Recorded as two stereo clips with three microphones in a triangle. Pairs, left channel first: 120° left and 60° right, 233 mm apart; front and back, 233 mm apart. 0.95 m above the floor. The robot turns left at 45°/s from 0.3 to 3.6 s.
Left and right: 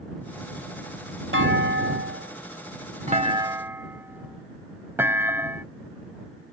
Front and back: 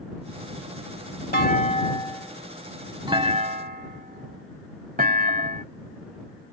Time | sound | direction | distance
1.3 | a clunk | 35° right | ?